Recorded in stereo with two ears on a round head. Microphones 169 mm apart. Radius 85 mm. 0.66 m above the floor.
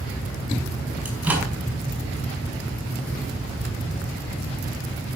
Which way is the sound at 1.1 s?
10° right (ahead or behind).